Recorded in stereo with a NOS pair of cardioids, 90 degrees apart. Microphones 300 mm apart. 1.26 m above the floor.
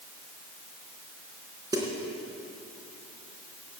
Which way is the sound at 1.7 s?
10° right.